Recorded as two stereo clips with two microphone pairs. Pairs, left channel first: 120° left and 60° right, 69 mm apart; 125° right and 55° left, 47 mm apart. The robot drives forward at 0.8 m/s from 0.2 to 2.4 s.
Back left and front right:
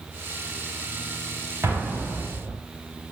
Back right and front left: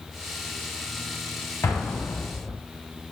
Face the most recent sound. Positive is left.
turn(degrees=-145)